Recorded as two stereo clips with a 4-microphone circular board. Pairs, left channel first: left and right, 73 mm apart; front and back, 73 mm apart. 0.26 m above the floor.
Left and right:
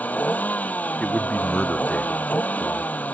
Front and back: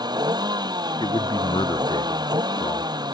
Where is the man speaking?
10° left.